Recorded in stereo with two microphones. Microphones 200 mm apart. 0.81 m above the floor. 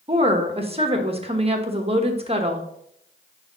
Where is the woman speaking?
30° right (ahead or behind), 1.1 m.